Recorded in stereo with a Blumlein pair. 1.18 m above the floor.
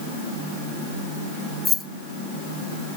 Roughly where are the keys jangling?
Ahead.